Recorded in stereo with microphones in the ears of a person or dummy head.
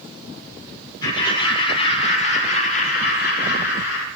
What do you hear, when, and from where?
1.0 s laughter: 25° left (ahead or behind), 3 m; by 4.1 s 75° left (ahead or behind), 2.5 m